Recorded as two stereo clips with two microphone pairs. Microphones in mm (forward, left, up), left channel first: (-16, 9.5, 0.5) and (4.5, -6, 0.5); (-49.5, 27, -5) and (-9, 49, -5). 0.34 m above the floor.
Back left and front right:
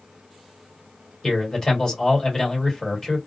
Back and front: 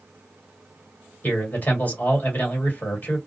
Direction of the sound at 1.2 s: 160° right.